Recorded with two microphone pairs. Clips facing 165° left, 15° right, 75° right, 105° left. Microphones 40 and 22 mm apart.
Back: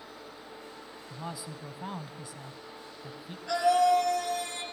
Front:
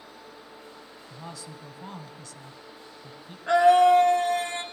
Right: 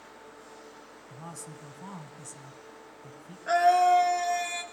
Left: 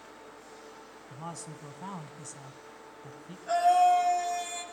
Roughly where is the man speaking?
Behind left.